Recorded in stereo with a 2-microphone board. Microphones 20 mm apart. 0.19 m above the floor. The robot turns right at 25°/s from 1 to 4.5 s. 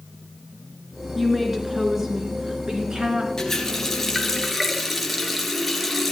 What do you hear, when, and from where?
1.1 s a woman speaking: straight behind, 2.5 m; by 3.3 s 125° right, 2.5 m
3.4 s a running tap: 20° left (ahead or behind), 2.5 m; by 6.1 s 5° right (ahead or behind), 2.5 m